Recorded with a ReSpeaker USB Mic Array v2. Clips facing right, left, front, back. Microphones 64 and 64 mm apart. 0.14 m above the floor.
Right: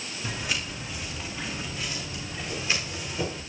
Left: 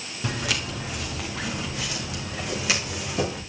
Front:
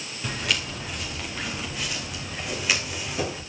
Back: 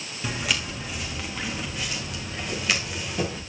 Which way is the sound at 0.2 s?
95° left.